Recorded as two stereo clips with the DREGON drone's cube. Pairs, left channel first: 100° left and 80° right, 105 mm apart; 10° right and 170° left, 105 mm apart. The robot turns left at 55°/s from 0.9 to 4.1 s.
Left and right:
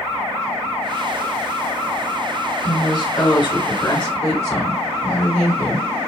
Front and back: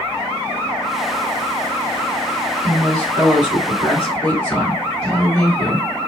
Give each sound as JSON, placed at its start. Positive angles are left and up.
{"t": 2.6, "sound": "a woman speaking", "azimuth_deg": 135, "distance_m": 2.0}